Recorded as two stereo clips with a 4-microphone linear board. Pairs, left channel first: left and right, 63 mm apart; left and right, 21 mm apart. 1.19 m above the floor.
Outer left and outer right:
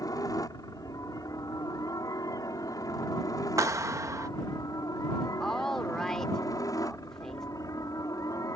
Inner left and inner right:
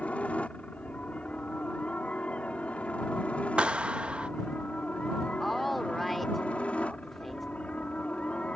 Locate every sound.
0.0 s a helicopter: 70° left (ahead or behind); by 8.6 s 60° left (ahead or behind)
3.6 s a clap: 50° right (ahead or behind)
5.4 s a woman speaking: 5° left (ahead or behind)